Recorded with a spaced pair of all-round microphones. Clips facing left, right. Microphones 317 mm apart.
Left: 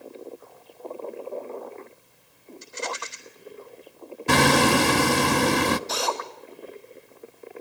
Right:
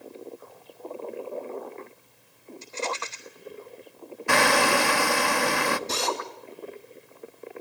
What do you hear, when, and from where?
2.6 s a rattle: 20° left (ahead or behind), 3.5 m
4.3 s hammering: 45° left (ahead or behind), 0.8 m
5.9 s a drill: 30° right (ahead or behind), 3 m